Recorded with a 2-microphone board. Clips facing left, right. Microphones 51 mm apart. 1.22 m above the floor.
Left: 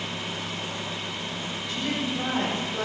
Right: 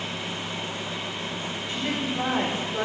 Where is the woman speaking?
30° right (ahead or behind), 4 m.